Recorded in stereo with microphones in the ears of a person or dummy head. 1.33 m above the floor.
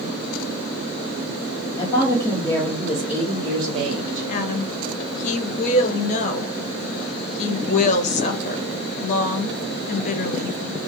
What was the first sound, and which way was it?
A woman speaking, 25° left (ahead or behind).